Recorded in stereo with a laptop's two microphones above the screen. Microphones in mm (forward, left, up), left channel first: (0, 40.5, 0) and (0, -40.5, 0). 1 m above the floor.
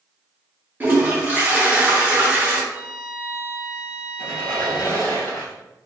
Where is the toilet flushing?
25° right (ahead or behind), 0.8 m.